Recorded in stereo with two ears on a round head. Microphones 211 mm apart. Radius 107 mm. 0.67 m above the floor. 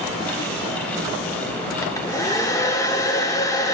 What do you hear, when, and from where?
1.8 s a hair dryer: 15° left (ahead or behind), 0.6 m